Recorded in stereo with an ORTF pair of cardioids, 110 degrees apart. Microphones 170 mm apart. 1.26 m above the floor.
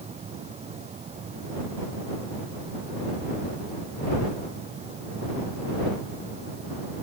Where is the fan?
40° right.